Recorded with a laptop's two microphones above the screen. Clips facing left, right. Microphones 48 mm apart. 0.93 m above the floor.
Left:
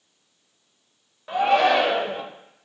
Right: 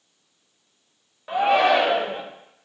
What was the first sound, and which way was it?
A shout, 5° right (ahead or behind).